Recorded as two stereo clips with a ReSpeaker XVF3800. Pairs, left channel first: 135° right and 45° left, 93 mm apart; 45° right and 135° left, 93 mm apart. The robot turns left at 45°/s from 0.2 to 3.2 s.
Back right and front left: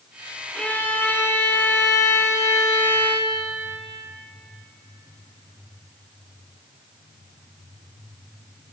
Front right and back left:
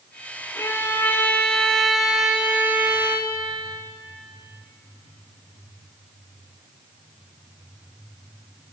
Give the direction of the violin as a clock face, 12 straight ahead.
2 o'clock.